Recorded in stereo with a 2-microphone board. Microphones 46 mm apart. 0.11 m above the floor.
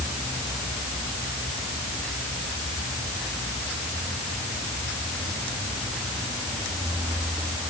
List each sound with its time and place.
Only background noise.